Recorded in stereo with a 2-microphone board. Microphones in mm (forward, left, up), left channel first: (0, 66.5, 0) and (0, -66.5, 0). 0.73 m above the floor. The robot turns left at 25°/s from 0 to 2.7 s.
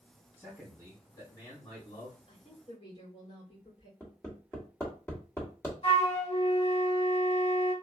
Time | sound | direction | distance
0.4 | a man speaking | 170° left | 1.7 m
2.3 | a woman speaking | 55° left (ahead or behind) | 2.5 m
4.0 | hammering | 20° left (ahead or behind) | 1.3 m
5.8 | a flute | 50° left (ahead or behind) | 1.1 m